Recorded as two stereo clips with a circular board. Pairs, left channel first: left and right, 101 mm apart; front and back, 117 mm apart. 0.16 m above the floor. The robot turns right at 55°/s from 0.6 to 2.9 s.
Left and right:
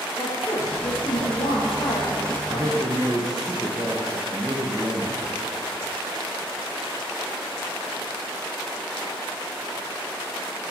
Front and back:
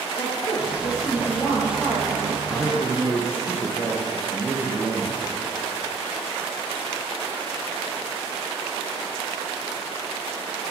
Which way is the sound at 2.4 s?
85° right.